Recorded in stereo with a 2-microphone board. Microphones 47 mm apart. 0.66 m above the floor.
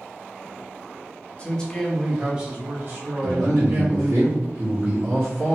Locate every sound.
1.4 s a man speaking: 25° left (ahead or behind), 0.8 m; by 4.2 s 65° right (ahead or behind), 1.5 m
3.2 s a man speaking: 40° right (ahead or behind), 1.2 m